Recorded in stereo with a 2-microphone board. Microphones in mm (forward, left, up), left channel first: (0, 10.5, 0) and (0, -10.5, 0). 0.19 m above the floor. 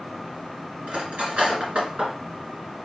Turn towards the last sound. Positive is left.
turn(degrees=-70)  # may be behind; listen again after turning